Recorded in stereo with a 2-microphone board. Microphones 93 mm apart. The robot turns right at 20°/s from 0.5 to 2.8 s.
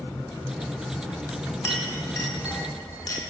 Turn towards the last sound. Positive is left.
turn(degrees=45)  # may be behind; listen again after turning